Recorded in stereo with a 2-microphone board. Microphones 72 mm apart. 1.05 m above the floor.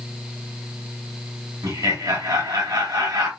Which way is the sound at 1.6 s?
60° right (ahead or behind).